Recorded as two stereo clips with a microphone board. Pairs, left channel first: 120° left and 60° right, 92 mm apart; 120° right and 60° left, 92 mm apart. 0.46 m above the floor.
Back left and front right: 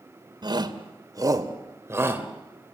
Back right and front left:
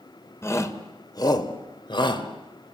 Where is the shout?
70° right, 2 m; by 2.8 s 135° right, 2.5 m.